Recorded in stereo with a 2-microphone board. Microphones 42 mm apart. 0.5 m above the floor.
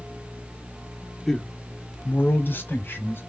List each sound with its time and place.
1.3 s a man speaking: 5° left (ahead or behind), 1.1 m; by 3.2 s 55° left (ahead or behind), 2.5 m